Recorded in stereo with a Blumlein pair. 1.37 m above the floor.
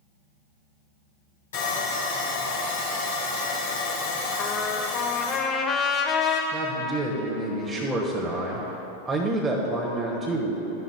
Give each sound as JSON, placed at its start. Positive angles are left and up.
{"t": 1.5, "sound": "sawing", "azimuth_deg": 60, "distance_m": 3.5}
{"t": 4.4, "sound": "a trumpet", "azimuth_deg": 25, "distance_m": 1.2}
{"t": 6.5, "sound": "a man speaking", "azimuth_deg": -15, "distance_m": 1.5}